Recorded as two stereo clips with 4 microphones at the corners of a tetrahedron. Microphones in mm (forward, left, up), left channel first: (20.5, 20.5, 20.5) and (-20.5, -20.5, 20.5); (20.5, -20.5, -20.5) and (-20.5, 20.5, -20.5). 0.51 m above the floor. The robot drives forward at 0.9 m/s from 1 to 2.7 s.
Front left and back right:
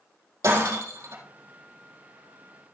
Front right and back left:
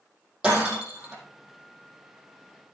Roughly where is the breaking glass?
Behind right.